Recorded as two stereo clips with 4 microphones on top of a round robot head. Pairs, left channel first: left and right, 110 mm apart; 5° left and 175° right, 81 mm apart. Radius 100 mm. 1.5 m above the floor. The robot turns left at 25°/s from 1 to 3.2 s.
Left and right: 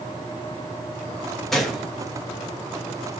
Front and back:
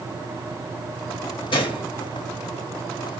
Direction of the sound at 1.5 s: 5° left.